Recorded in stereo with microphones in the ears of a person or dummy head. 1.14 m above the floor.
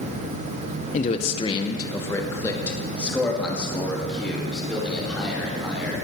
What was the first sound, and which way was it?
A man speaking, 30° left (ahead or behind).